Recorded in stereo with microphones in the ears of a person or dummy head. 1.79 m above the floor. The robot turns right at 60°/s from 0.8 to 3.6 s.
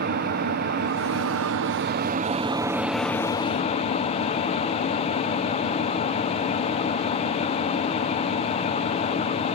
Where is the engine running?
135° right, 0.9 m; by 9.6 s 35° left, 0.9 m.